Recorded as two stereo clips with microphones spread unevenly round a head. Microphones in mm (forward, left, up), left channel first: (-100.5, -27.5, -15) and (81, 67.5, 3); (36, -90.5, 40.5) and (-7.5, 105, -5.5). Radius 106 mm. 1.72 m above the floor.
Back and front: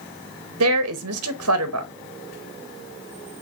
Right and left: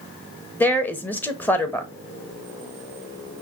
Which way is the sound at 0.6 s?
5° left.